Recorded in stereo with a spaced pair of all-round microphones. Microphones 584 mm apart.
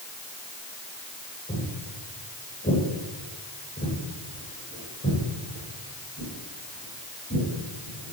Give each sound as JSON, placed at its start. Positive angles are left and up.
{"t": 1.5, "sound": "footsteps", "side_deg": 15, "distance_m": 8.0}